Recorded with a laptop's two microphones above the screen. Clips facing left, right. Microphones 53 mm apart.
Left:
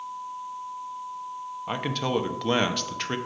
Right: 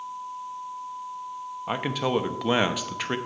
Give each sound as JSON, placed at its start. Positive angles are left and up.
{"t": 1.7, "sound": "a man speaking", "side_deg": -10, "distance_m": 0.9}